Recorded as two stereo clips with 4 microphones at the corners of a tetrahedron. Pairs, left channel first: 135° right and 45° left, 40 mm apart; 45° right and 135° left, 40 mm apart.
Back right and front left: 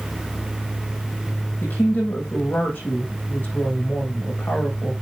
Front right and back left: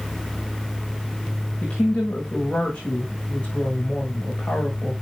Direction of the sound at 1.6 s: 105° right.